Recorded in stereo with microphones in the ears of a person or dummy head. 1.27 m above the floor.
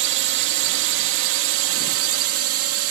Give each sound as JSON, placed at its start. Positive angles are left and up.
{"t": 0.0, "sound": "a drone", "side_deg": -65}